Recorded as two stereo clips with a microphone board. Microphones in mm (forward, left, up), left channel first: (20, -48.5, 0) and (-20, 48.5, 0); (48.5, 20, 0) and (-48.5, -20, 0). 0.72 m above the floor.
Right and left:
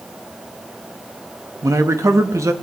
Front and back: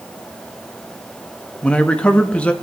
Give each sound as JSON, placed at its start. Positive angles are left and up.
{"t": 1.6, "sound": "a man speaking", "azimuth_deg": 90, "distance_m": 0.7}